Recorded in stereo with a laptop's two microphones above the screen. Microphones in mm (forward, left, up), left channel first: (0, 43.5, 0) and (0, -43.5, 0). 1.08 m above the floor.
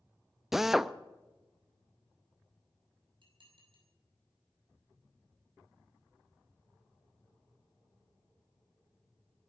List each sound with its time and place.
0.5 s a drill: 5° right (ahead or behind), 0.5 m
3.2 s dishes clattering: 65° right (ahead or behind), 5.5 m